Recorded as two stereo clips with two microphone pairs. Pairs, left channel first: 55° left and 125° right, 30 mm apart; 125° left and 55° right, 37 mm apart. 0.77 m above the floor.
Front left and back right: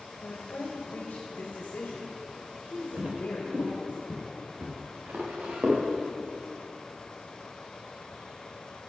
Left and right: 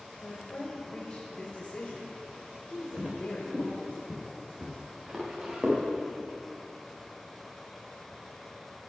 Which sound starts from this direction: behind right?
Footsteps, at 3.0 s.